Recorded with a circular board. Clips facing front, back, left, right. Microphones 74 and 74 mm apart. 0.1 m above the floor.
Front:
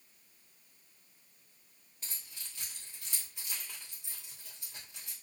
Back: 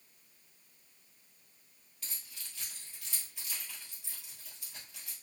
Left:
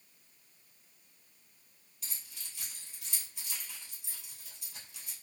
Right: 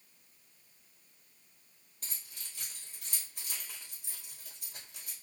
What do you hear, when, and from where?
2.0 s keys jangling: 60° right, 2.0 m